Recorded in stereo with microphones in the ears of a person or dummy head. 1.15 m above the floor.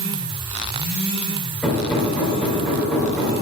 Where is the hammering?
5° left (ahead or behind), 2 m.